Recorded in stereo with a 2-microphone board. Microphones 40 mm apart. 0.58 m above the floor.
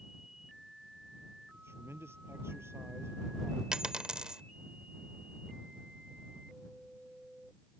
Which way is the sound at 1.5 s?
85° right.